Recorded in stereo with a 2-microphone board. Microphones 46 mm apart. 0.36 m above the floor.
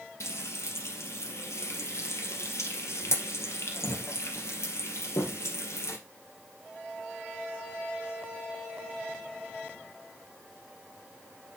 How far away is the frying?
About 2.5 m.